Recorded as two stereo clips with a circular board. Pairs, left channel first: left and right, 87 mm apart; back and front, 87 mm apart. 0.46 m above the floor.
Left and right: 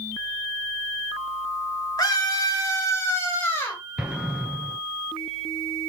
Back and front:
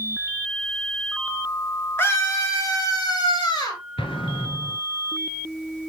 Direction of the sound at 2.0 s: 120° left.